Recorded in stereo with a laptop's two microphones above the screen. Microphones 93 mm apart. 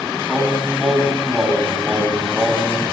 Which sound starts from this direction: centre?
Singing, at 0.3 s.